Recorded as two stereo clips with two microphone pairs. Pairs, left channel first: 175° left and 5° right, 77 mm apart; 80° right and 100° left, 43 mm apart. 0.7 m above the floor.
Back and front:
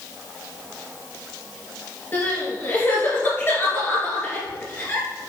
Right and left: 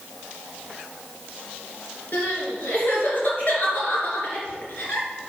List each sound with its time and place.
2.1 s crying: 125° right, 3 m